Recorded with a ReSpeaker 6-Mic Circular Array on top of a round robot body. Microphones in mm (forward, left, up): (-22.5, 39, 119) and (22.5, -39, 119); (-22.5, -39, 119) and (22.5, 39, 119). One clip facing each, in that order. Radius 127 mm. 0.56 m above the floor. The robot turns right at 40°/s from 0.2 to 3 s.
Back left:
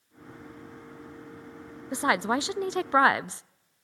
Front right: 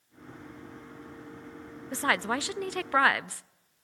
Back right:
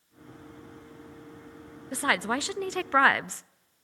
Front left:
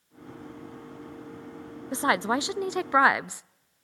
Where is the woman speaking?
75° left, 0.6 m; by 3.4 s 115° left, 0.6 m.